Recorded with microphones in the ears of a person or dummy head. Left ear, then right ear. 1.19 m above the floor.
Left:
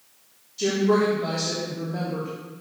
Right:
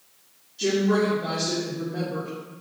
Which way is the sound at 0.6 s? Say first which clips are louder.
Left 1 dB; 85° left.